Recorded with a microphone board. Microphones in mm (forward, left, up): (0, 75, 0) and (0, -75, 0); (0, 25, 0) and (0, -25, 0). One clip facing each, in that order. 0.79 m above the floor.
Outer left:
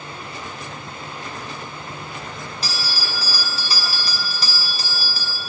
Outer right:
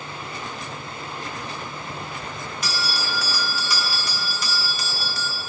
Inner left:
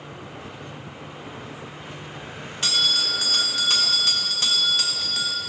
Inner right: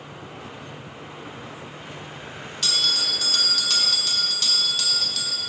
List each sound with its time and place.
2.6 s a bell: 30° left (ahead or behind), 0.9 m